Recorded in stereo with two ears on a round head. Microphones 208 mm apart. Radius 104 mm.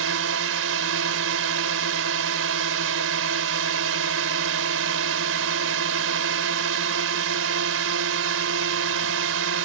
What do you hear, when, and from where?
0.0 s a drone: 60° right (ahead or behind)